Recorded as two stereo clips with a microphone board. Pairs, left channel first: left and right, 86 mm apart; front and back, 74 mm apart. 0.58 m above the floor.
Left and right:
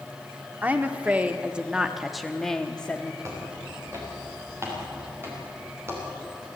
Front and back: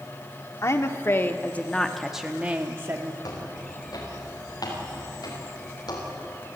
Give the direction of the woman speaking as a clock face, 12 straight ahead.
1 o'clock.